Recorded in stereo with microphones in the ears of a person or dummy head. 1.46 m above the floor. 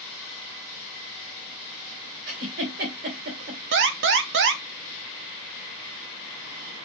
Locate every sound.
2.3 s a giggle: 45° right (ahead or behind), 2.5 m
3.7 s an alarm: 70° right (ahead or behind), 1.1 m